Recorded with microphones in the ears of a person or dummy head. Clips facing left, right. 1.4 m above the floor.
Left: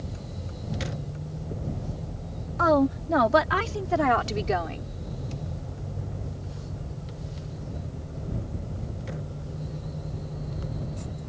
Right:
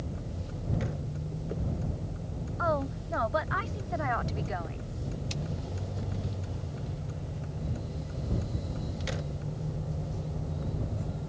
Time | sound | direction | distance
2.6 | a woman speaking | 85° left | ?